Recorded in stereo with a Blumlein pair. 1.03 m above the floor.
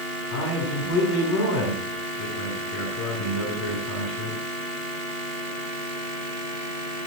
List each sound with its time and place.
0.3 s a man speaking: 45° left, 9.5 m